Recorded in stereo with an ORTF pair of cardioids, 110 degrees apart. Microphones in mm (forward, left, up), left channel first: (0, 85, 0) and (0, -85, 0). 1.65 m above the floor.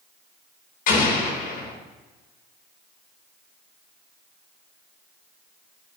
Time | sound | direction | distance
0.9 | an explosion | 60° left | 3.5 m